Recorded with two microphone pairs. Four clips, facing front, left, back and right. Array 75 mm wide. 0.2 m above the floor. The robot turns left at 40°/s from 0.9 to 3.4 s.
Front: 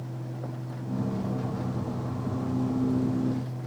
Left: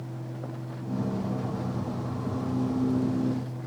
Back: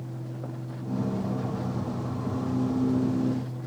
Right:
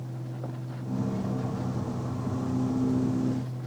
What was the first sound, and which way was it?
Only background noise.